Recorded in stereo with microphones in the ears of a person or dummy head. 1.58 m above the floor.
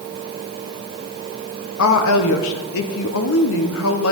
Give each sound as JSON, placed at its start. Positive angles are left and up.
{"t": 1.8, "sound": "a woman speaking", "side_deg": 75, "distance_m": 1.1}